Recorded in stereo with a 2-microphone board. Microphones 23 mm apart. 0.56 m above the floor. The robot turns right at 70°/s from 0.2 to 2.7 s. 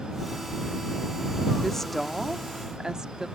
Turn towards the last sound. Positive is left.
turn(degrees=-145)